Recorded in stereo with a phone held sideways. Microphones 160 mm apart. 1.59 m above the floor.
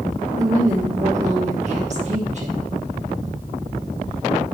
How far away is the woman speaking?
About 2.0 m.